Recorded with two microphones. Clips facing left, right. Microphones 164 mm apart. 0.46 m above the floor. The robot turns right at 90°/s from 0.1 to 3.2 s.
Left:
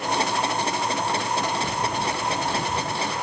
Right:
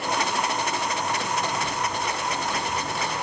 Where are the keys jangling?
45° left; by 3.0 s 165° left.